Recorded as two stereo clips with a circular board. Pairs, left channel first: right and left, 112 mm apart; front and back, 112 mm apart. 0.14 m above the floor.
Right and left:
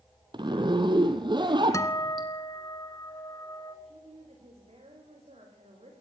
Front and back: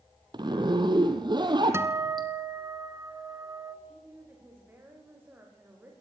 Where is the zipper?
135° left, 2 m.